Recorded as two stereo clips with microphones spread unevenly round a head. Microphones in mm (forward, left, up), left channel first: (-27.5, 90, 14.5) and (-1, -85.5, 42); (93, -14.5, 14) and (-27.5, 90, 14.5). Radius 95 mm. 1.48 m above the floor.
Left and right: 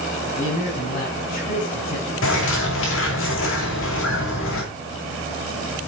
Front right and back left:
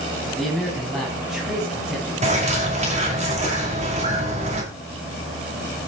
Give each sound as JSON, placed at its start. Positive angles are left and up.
{"t": 0.3, "sound": "a man speaking", "azimuth_deg": 45, "distance_m": 9.0}
{"t": 2.2, "sound": "a bird", "azimuth_deg": 90, "distance_m": 8.5}